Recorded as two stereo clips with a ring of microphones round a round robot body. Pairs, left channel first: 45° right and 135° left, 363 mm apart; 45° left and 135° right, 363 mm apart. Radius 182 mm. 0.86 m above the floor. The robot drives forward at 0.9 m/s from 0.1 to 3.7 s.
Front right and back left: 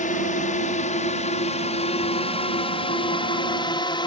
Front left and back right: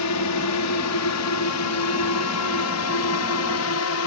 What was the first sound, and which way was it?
A drone, 20° left.